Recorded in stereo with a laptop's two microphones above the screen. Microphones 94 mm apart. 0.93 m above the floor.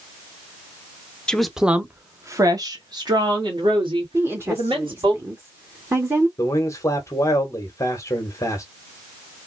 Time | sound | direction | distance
1.3 | a woman speaking | 10° left (ahead or behind) | 0.7 m
4.1 | a woman speaking | 25° right (ahead or behind) | 1.1 m
6.4 | a man speaking | 30° left (ahead or behind) | 1.1 m